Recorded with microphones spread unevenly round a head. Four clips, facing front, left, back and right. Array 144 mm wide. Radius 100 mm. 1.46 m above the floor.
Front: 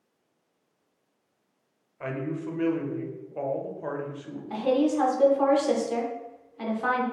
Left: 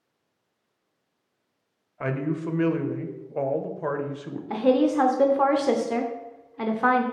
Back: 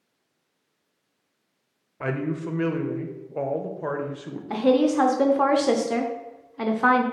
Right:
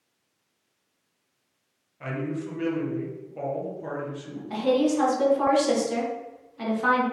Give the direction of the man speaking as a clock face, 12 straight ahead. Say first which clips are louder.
Left 3 dB, back 4 dB; 7 o'clock.